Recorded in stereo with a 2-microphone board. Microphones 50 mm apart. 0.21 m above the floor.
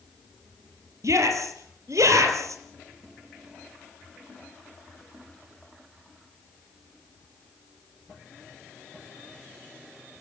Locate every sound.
1.0 s a shout: 75° right (ahead or behind), 5 m